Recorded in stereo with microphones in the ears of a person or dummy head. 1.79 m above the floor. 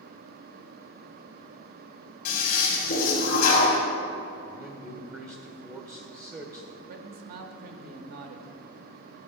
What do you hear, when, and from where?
2.2 s a toilet flushing: 50° left (ahead or behind), 1.6 m
4.5 s a man speaking: 15° right (ahead or behind), 0.6 m
6.9 s a man speaking: 55° right (ahead or behind), 0.6 m